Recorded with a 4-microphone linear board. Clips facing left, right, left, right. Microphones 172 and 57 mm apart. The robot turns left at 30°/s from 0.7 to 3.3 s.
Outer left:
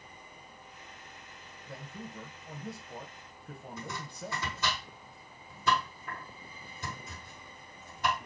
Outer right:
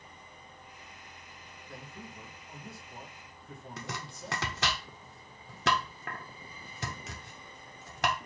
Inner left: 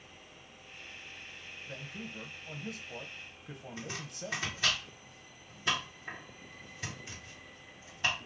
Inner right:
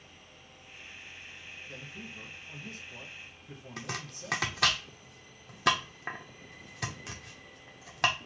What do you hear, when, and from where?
1.6 s a man speaking: 115° left, 1.1 m; by 4.8 s 65° left, 1.1 m
3.8 s chopping: 80° right, 0.7 m